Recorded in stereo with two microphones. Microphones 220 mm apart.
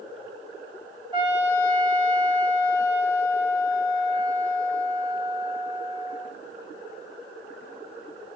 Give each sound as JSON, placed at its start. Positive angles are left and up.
{"t": 1.1, "sound": "a trumpet", "side_deg": -20, "distance_m": 7.5}